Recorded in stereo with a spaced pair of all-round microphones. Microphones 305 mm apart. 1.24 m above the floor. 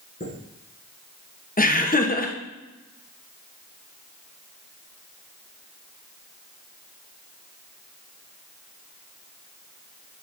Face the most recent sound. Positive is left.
turn(degrees=30)  # may be behind; listen again after turning